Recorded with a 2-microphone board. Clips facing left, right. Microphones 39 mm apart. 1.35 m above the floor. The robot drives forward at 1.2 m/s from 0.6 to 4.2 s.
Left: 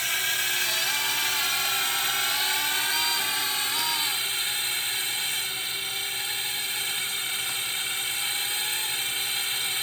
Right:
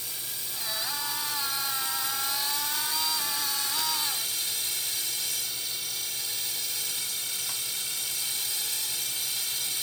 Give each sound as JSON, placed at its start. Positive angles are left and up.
{"t": 0.0, "sound": "a drone", "side_deg": 75}